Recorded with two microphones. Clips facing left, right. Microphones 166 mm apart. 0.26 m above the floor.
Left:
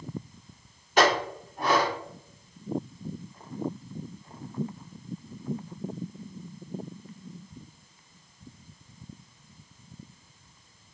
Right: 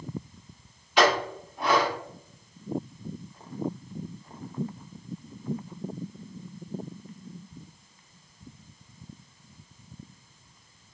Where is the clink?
45° left (ahead or behind), 1.4 m.